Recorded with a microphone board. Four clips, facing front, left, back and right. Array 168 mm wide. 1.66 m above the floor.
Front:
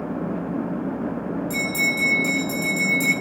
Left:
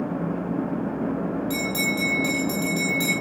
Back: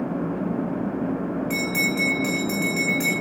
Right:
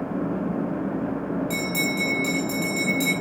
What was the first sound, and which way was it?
A bell, 160° left.